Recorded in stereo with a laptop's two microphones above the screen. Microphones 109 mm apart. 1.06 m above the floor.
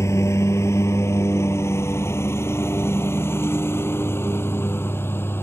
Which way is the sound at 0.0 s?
25° left (ahead or behind).